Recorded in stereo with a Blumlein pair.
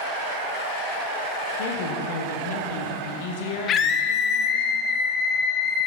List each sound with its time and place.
1.6 s a woman speaking: 50° left, 0.8 m
3.7 s a scream: 30° left, 0.5 m